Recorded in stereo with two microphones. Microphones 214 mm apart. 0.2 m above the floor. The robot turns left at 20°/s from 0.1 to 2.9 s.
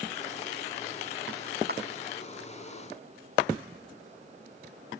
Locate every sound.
1.7 s a clap: 50° right (ahead or behind); by 1.8 s 45° right (ahead or behind)